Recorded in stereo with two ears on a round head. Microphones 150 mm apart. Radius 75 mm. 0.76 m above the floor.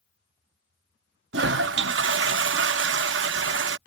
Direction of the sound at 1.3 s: 75° right (ahead or behind).